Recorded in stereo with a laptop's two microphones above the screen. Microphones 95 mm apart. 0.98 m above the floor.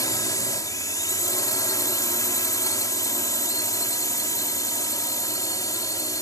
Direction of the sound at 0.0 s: 40° left (ahead or behind).